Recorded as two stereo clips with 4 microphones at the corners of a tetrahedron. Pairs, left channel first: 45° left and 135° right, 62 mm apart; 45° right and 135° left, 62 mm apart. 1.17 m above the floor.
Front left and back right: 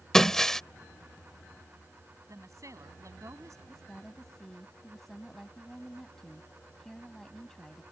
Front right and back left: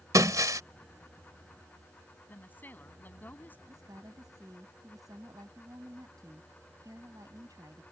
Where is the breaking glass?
130° left.